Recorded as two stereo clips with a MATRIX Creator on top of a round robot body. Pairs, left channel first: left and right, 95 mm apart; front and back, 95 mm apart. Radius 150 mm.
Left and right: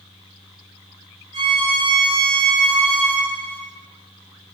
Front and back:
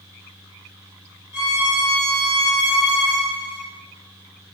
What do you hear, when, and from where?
1.3 s a violin: 110° right, 1.8 m